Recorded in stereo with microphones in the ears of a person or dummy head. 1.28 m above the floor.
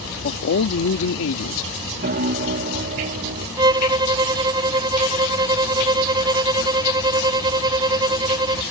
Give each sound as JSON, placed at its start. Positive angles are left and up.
{"t": 0.2, "sound": "a man speaking", "side_deg": 55}
{"t": 2.0, "sound": "a piano", "side_deg": -45}
{"t": 3.6, "sound": "a violin", "side_deg": -20}